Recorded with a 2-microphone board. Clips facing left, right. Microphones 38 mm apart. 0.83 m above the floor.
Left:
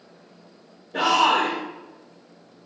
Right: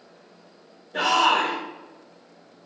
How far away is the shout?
About 2.5 m.